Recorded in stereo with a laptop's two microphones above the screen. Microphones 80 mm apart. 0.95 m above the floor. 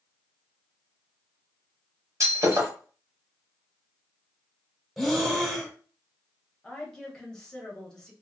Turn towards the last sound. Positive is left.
turn(degrees=5)  # may be behind; listen again after turning